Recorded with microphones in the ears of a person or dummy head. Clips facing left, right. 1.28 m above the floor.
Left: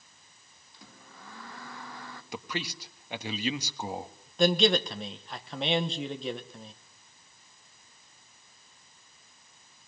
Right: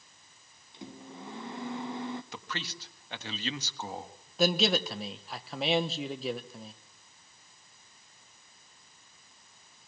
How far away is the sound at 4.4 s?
About 1.0 m.